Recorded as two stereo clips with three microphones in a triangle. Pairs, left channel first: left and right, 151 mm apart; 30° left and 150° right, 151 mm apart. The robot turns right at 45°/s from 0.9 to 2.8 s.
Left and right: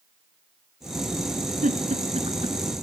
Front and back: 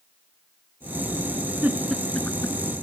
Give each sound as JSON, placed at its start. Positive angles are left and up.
{"t": 1.6, "sound": "a giggle", "azimuth_deg": -75, "distance_m": 1.9}